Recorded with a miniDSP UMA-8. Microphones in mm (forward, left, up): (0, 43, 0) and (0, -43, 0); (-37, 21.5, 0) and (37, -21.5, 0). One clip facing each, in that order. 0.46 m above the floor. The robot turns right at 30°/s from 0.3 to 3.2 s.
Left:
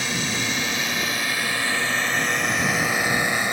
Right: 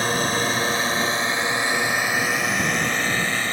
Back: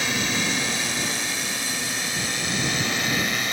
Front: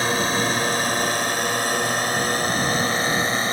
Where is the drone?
60° right; by 3.5 s 15° left.